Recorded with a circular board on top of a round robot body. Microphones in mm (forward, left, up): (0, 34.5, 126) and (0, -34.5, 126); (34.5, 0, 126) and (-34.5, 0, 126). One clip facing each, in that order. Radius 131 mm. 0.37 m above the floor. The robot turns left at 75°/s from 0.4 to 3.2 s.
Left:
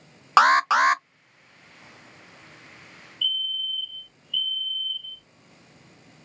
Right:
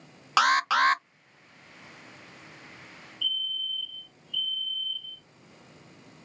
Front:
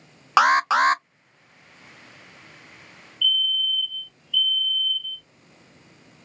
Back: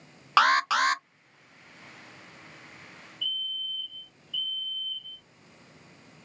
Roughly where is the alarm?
Ahead left.